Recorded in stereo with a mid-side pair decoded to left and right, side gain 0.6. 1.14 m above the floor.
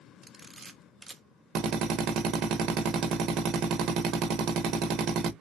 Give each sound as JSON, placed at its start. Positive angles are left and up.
{"t": 0.2, "sound": "a camera shutter", "azimuth_deg": -25, "distance_m": 0.6}
{"t": 1.6, "sound": "a drill", "azimuth_deg": -60, "distance_m": 1.0}